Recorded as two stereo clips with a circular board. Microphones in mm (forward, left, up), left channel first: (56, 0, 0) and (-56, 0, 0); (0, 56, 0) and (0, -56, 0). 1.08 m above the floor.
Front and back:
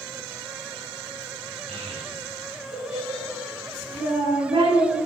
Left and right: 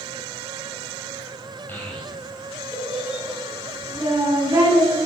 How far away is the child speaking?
About 3 m.